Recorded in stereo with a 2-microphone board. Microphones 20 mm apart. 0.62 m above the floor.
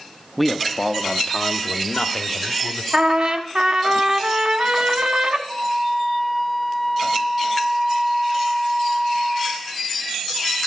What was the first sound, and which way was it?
A man speaking, 5° right (ahead or behind).